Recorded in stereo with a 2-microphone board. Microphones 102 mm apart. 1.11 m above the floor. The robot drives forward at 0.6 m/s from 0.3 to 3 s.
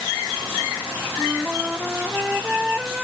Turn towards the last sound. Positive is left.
turn(degrees=-5)  # may be behind; listen again after turning